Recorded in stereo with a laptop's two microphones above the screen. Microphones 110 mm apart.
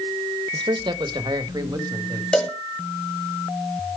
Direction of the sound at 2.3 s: 10° left (ahead or behind).